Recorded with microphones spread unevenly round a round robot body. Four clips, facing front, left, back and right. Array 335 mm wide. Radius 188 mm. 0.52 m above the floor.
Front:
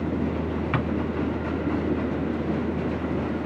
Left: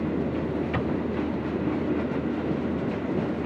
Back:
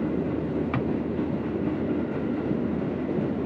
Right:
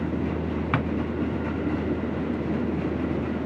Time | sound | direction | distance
0.7 | a drawer | 80° right | 2 m